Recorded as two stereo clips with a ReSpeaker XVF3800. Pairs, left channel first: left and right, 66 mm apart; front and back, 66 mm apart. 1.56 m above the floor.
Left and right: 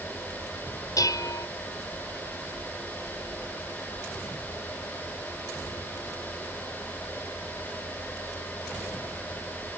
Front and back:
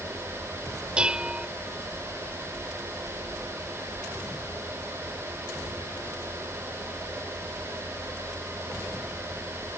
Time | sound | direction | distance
1.0 | dishes clattering | 105° left | ?